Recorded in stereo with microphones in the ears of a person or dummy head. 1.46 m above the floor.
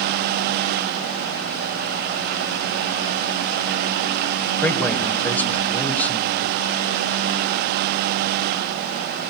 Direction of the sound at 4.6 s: 10° left (ahead or behind).